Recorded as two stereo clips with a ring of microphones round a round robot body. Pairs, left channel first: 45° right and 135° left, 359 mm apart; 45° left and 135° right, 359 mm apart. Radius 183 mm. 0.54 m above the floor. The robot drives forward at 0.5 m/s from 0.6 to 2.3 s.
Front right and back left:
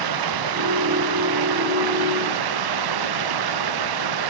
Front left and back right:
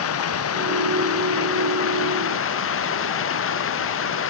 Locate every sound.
0.0 s running water: 100° left; by 4.3 s 105° left